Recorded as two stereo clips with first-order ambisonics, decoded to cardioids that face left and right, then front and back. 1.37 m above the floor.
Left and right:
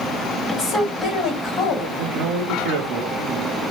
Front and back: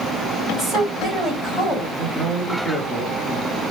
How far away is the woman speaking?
About 1.7 m.